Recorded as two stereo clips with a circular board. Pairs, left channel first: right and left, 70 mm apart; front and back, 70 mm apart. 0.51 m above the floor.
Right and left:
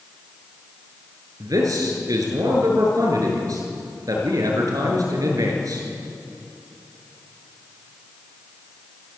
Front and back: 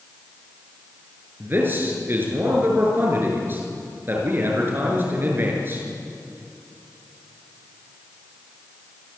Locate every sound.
1.4 s a man speaking: 120° left, 7 m